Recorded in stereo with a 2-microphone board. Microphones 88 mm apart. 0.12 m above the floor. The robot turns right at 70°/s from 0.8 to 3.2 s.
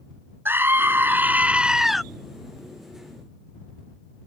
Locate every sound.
0.5 s a scream: 25° right (ahead or behind); by 2.0 s centre (ahead or behind)